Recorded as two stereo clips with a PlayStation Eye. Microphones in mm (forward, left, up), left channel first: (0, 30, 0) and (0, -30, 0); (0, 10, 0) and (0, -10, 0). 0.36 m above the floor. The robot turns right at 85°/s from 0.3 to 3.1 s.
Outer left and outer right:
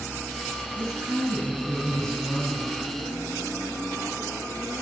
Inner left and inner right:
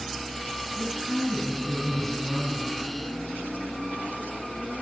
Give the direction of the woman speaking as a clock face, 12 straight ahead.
3 o'clock.